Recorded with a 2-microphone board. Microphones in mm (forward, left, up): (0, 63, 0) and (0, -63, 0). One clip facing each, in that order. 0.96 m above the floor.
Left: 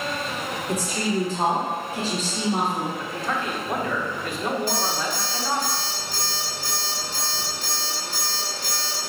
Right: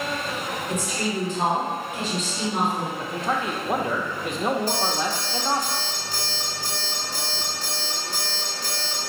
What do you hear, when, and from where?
0.7 s a woman speaking: 35° left (ahead or behind), 1.2 m
3.0 s a man speaking: 20° right (ahead or behind), 0.6 m
4.7 s an alarm clock: 40° right (ahead or behind), 1.1 m